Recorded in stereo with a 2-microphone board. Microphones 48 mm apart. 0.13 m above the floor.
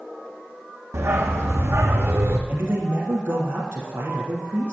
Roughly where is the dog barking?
Right.